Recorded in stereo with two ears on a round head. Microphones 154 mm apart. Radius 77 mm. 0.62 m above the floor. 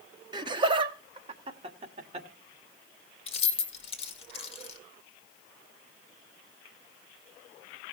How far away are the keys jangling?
About 1.8 m.